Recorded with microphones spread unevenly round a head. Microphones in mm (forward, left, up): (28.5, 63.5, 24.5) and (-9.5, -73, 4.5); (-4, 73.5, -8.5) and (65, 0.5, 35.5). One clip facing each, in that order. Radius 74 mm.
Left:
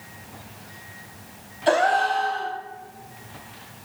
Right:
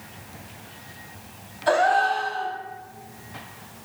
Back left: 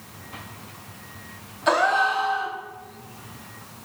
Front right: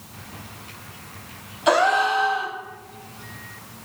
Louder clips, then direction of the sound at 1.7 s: Even, front right 2 dB; 20° left.